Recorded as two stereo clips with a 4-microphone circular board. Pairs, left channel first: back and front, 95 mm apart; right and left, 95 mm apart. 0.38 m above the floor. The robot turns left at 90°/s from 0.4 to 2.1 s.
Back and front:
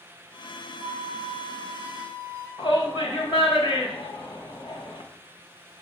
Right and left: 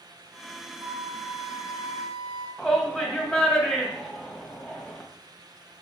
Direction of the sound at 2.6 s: 170° right.